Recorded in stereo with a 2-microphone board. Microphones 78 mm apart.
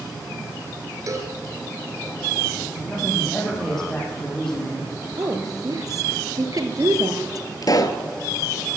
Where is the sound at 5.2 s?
55° right (ahead or behind), 2 m.